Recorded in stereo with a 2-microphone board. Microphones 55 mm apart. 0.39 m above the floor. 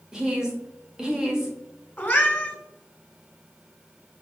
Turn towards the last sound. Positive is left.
turn(degrees=30)  # may be behind; listen again after turning